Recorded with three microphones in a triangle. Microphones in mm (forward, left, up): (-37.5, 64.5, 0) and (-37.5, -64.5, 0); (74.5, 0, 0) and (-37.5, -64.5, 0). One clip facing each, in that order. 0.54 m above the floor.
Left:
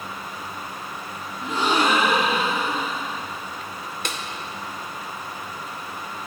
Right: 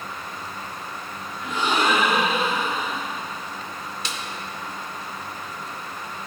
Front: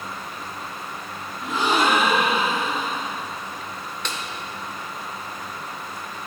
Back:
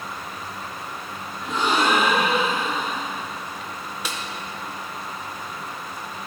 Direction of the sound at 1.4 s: 115° left.